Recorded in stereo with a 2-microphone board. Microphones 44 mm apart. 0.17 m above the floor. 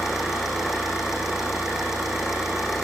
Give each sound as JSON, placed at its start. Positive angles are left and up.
{"t": 0.0, "sound": "an engine running", "side_deg": -5, "distance_m": 8.0}